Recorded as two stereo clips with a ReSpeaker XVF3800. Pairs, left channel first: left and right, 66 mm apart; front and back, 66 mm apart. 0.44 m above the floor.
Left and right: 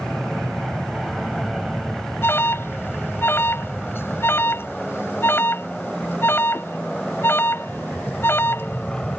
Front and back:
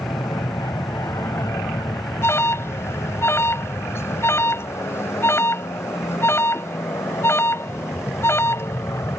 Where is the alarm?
40° left.